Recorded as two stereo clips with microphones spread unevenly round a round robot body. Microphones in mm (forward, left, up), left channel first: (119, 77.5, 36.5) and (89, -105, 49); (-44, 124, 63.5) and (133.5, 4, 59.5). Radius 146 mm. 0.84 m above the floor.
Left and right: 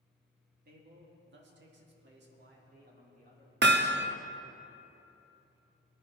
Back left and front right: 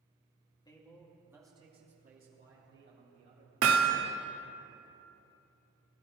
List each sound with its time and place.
0.7 s a man speaking: 140° right, 2 m; by 3.5 s 60° right, 4 m
3.6 s hammering: 70° right, 1.0 m